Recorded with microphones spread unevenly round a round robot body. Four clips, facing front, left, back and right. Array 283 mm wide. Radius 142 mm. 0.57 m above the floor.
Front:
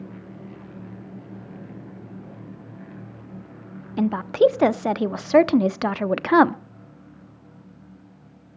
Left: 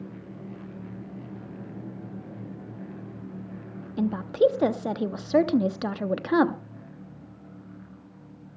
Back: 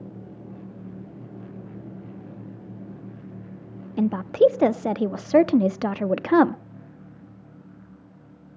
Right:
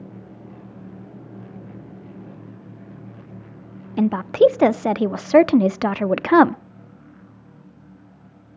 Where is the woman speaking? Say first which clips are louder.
Right 7 dB, even; 75° right, 0.8 m.